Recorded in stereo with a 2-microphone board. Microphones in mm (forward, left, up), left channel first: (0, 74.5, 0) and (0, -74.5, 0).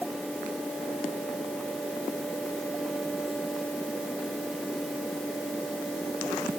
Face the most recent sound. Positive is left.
No sound to turn to.